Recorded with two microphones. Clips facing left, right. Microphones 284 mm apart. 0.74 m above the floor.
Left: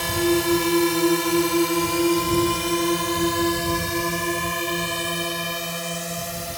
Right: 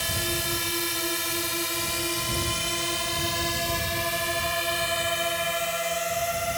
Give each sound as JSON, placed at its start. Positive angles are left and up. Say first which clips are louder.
{"t": 0.0, "sound": "a drone", "louder": "left 13 dB", "side_deg": 65}